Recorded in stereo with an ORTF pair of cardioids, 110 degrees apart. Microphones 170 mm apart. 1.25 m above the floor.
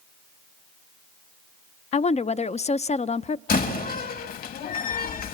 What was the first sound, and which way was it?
A woman speaking, 40° left.